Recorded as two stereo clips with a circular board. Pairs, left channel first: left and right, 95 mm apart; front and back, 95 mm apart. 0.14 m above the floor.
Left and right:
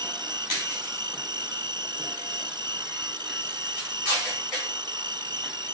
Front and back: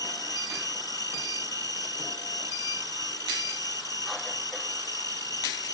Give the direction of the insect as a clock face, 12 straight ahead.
2 o'clock.